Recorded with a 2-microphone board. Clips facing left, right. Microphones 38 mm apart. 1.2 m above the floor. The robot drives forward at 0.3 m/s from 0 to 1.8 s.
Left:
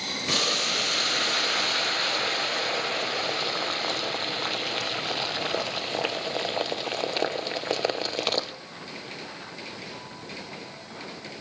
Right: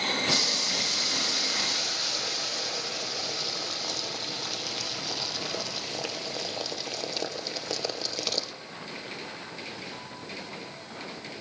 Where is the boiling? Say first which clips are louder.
Left 3 dB; 45° left (ahead or behind), 0.8 m; by 8.5 s 35° left (ahead or behind), 0.9 m.